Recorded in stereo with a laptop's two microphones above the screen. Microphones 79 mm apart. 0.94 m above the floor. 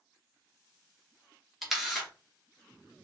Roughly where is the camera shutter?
Centre.